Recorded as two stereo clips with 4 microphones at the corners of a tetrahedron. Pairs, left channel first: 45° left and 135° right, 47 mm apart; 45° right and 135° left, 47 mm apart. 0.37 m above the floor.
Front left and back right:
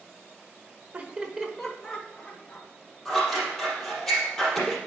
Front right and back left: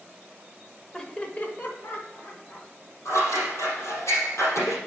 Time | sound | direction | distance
0.9 | laughter | 115° right | 1.0 m
3.0 | scissors | 40° right | 3.5 m